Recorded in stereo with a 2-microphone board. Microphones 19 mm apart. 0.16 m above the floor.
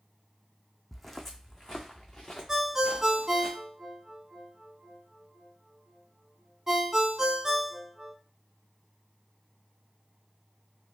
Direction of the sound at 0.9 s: Centre (ahead or behind).